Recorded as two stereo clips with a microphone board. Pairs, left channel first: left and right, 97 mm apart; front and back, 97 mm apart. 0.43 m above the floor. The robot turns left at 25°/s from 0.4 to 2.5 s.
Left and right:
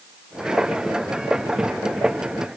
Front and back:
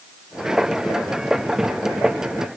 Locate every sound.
Only background noise.